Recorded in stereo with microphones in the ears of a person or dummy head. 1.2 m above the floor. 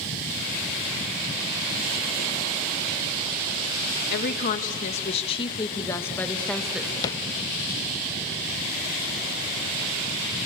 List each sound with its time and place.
4.1 s a woman speaking: 55° left (ahead or behind), 1.7 m; by 6.9 s 5° right (ahead or behind), 1.6 m
7.0 s tapping: 15° left (ahead or behind), 0.8 m